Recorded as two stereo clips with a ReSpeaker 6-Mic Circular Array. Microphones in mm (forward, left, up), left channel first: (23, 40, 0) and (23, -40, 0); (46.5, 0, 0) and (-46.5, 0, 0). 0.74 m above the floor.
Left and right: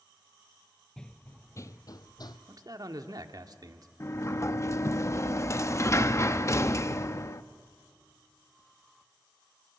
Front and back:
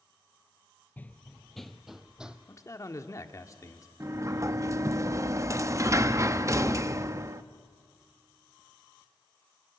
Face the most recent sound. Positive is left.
turn(degrees=135)